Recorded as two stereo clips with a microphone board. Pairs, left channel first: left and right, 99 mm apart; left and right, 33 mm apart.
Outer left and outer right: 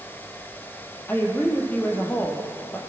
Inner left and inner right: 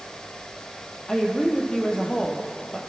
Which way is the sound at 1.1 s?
20° left (ahead or behind).